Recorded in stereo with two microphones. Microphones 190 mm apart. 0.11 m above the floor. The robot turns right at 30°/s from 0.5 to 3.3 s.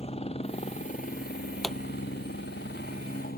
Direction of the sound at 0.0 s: 35° left.